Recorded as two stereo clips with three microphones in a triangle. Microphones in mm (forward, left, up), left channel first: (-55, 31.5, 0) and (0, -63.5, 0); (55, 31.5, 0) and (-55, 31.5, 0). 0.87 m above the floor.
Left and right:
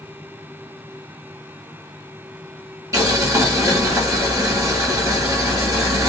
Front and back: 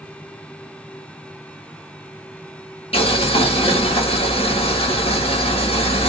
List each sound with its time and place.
2.9 s boiling: 5° right, 1.9 m